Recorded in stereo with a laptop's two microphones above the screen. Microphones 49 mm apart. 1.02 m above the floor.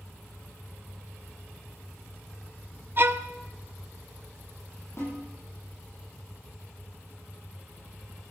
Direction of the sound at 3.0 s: 45° right (ahead or behind).